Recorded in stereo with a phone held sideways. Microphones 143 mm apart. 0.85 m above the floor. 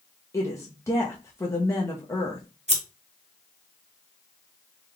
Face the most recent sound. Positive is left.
turn(degrees=-50)  # may be behind; listen again after turning